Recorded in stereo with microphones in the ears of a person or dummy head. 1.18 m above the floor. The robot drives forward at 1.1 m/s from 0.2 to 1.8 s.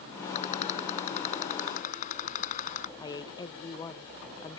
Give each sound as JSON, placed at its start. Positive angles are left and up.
{"t": 0.3, "sound": "a rattle", "side_deg": 35}
{"t": 3.0, "sound": "a woman speaking", "side_deg": 25}